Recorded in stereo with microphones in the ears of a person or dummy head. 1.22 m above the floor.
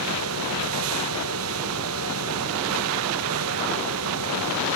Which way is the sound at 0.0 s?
75° right (ahead or behind).